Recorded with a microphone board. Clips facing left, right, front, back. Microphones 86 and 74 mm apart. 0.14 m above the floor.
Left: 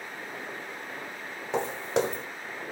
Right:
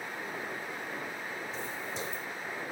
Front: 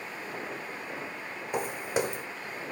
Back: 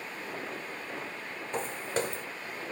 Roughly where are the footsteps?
Left.